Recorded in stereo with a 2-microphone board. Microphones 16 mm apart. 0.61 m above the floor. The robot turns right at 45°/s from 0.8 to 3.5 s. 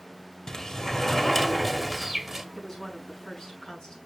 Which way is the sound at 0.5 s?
145° left.